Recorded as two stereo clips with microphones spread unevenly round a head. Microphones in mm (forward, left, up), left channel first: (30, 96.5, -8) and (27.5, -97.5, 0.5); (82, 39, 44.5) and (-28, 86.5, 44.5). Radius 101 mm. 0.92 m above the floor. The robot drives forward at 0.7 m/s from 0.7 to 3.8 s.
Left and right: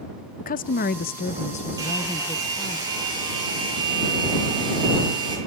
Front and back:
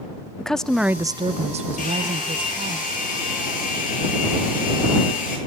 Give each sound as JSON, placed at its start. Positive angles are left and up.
{"t": 0.4, "sound": "a woman speaking", "azimuth_deg": 60, "distance_m": 0.5}
{"t": 1.8, "sound": "a hair dryer", "azimuth_deg": -20, "distance_m": 7.5}